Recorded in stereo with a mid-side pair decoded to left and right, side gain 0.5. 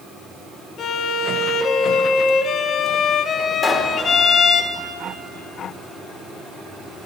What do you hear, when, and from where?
0.8 s a violin: 55° left, 0.7 m
3.6 s a pop: 15° left, 1.9 m